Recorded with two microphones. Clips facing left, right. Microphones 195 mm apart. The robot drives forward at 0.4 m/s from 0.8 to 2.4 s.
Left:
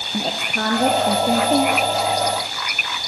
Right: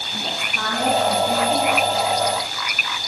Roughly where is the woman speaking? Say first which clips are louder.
Left 6 dB; left.